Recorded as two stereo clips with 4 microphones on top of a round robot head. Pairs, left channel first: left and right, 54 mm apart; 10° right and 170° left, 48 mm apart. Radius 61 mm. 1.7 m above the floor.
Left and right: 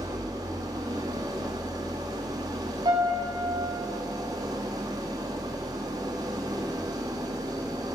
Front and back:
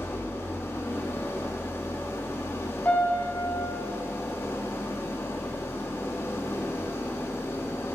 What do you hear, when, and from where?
0.0 s an engine running: 65° right, 2.0 m
2.9 s a piano: 80° right, 4.5 m